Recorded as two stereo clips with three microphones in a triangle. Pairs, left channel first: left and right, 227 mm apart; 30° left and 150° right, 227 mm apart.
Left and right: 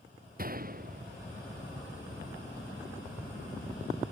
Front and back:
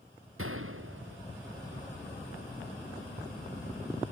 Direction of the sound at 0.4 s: 140° right.